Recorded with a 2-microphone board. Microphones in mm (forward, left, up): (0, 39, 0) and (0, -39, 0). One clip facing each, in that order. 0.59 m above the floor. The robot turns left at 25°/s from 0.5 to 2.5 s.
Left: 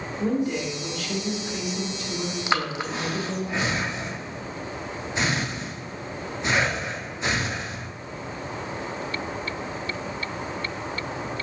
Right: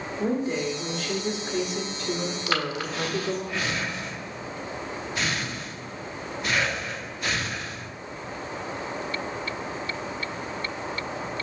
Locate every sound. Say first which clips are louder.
0.2 s a woman speaking: left 1 dB; 25° right, 1.6 m; by 3.5 s 75° right, 1.6 m
2.5 s breathing: left 3 dB; 20° left (ahead or behind), 0.6 m